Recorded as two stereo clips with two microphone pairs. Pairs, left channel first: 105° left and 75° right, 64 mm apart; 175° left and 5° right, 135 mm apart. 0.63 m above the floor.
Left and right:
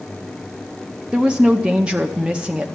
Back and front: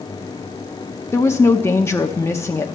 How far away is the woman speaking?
About 0.7 m.